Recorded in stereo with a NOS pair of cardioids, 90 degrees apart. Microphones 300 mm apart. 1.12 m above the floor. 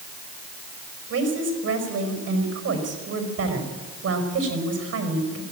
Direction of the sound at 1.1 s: 55° right.